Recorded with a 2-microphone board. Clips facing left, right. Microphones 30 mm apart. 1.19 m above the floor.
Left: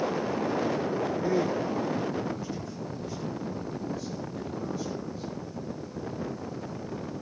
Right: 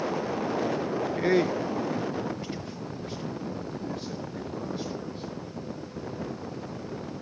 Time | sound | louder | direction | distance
1.2 | a man speaking | right 5 dB | 65° right (ahead or behind) | 0.5 m